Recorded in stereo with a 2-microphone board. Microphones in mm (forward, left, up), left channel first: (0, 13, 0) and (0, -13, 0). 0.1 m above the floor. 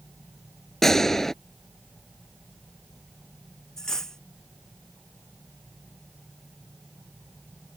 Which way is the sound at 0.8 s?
15° left (ahead or behind).